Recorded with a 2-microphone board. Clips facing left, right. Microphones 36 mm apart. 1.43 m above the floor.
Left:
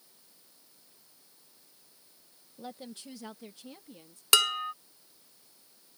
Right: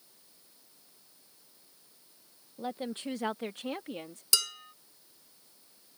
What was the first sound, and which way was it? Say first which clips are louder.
A woman speaking: right 7 dB; 20° right (ahead or behind).